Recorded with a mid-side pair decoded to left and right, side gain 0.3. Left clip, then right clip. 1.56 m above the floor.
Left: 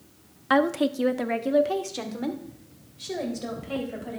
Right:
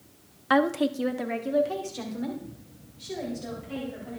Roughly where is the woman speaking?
Ahead.